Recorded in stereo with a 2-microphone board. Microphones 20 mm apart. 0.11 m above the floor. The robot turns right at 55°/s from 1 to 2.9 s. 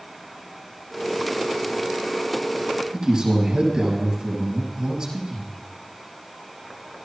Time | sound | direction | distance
2.9 | a man speaking | 30° right (ahead or behind) | 5.5 m